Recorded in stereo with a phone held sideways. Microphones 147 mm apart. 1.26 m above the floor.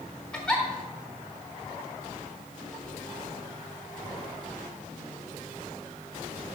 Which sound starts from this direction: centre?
A giggle, at 0.3 s.